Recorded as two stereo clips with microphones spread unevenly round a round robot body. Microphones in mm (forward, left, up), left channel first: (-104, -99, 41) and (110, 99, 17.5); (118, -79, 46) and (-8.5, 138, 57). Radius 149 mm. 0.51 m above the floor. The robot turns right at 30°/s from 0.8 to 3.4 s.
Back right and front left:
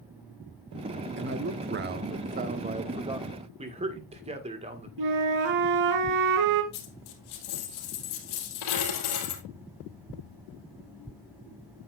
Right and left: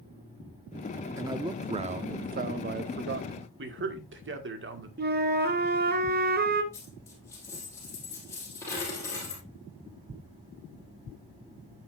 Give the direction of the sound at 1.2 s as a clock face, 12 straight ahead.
11 o'clock.